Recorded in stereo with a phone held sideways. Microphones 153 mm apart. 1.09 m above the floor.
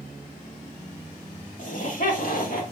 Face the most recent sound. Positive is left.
turn(degrees=75)  # may be behind; listen again after turning